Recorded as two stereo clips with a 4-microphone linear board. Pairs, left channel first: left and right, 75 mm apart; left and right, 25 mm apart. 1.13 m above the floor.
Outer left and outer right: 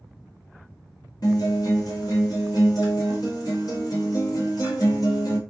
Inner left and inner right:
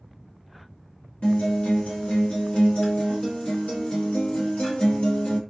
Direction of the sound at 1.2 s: 55° left (ahead or behind).